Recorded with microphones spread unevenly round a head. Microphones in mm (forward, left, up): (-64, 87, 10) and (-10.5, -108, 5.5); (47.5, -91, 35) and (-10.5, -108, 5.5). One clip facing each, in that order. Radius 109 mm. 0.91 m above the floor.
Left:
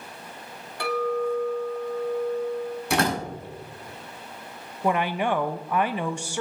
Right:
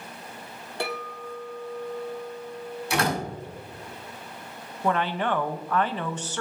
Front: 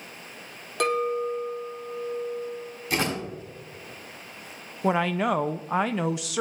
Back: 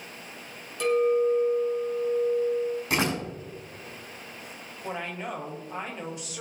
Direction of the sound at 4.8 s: 30° left.